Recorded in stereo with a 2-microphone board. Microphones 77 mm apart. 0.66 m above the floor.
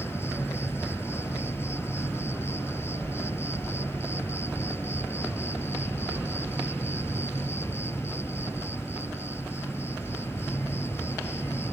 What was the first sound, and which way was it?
An insect, 30° left (ahead or behind).